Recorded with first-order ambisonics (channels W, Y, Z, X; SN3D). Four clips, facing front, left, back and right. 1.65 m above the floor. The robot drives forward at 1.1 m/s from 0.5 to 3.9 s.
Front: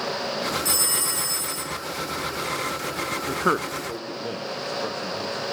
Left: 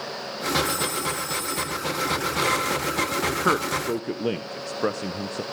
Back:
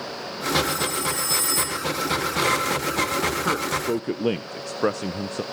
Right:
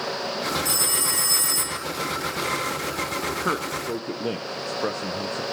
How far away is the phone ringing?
About 0.9 m.